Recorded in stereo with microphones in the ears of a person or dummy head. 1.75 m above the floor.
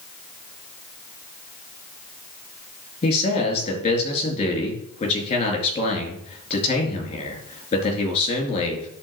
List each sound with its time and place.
3.0 s a man speaking: 40° left (ahead or behind), 4 m